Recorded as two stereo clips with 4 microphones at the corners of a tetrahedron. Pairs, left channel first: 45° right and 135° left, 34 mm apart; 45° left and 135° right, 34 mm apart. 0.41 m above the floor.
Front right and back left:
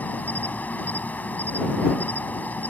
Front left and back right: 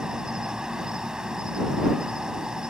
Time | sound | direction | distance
0.0 | an insect | 70° right | ?